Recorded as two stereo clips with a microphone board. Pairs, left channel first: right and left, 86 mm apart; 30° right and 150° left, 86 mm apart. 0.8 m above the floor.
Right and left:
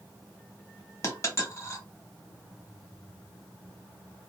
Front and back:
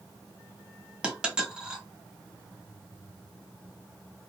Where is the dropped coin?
135° right, 0.9 m.